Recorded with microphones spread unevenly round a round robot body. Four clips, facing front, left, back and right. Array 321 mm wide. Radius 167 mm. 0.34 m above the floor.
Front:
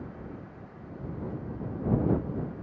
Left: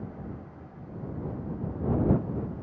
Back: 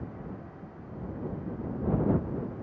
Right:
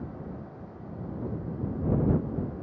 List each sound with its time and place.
Only background noise.